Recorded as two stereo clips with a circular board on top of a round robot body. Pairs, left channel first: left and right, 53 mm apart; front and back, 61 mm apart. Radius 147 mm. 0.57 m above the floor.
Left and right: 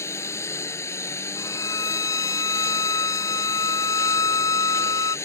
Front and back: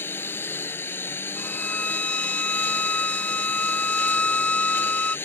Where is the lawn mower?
55° left.